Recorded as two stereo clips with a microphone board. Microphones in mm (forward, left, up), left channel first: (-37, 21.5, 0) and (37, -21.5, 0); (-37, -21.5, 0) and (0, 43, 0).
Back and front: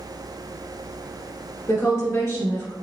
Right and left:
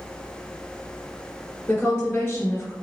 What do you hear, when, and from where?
1.7 s a woman speaking: 170° right, 1.8 m